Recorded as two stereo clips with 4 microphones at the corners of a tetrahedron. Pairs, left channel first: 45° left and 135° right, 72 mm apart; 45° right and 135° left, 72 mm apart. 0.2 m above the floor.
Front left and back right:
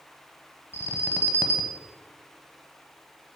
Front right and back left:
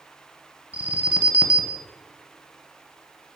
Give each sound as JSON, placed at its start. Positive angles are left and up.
{"t": 0.7, "sound": "an alarm", "azimuth_deg": 80, "distance_m": 0.8}